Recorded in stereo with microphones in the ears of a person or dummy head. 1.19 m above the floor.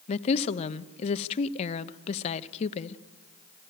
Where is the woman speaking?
35° left (ahead or behind), 0.8 m.